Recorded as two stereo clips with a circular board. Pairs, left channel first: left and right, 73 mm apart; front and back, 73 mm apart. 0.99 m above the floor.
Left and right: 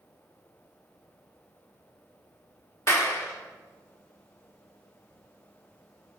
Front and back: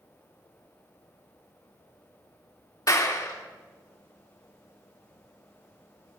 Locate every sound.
2.9 s a clap: 40° left, 2.5 m